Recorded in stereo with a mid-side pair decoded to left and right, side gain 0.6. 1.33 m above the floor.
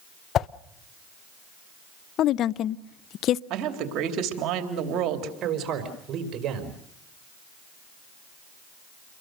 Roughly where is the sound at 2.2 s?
Ahead left.